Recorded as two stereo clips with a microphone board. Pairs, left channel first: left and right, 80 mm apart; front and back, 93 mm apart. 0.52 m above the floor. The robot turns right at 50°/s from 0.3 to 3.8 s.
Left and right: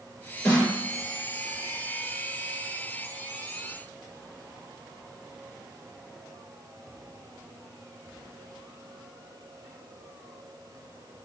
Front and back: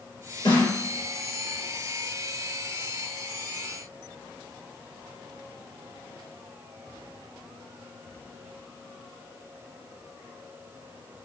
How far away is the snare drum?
About 2.5 m.